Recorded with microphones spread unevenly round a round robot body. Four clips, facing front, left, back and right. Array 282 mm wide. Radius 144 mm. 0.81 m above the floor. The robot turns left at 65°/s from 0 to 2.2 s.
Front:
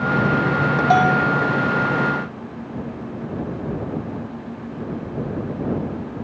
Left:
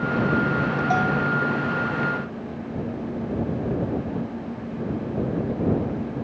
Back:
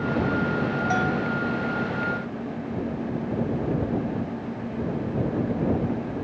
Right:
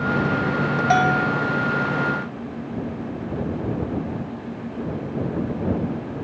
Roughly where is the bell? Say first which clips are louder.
Right 5 dB, front 12 dB; ahead right.